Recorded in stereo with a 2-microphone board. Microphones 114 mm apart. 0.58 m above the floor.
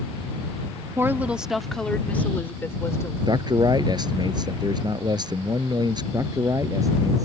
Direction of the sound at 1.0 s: 25° right (ahead or behind).